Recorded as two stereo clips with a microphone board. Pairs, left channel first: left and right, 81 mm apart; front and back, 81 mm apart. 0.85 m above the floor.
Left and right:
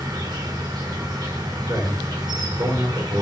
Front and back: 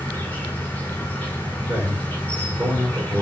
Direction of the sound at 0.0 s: 65° right.